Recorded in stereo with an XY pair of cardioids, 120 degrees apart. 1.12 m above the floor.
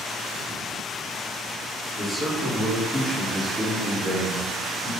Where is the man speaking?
5° left, 1.4 m; by 4.9 s 20° right, 2.5 m.